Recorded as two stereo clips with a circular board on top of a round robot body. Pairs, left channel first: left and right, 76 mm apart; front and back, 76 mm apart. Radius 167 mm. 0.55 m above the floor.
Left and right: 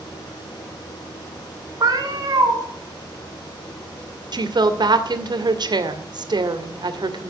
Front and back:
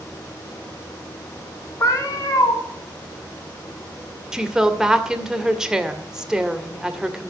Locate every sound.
1.8 s a cat meowing: 50° right, 3.5 m
4.3 s a woman speaking: 95° right, 2 m